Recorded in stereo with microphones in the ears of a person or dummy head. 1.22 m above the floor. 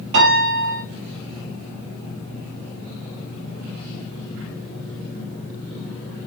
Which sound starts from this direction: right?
A piano, at 0.1 s.